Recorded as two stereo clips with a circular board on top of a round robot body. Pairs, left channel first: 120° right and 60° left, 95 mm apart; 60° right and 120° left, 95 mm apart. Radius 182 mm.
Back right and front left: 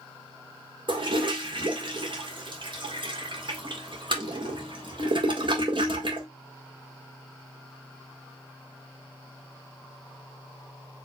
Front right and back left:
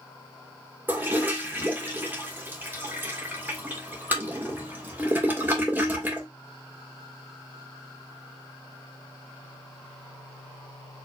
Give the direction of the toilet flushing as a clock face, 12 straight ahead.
10 o'clock.